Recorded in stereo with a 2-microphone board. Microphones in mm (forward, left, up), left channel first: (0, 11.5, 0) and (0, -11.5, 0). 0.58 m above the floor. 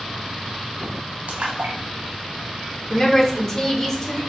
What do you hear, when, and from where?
1.3 s a splash: 80° right, 1.1 m
2.9 s a woman speaking: 20° left (ahead or behind), 1.1 m